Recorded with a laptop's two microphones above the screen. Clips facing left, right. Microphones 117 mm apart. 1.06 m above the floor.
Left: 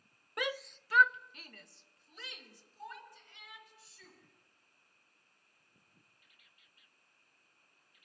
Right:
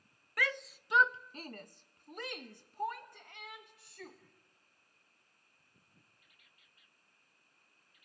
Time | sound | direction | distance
0.4 | a shout | 20° left (ahead or behind) | 0.6 m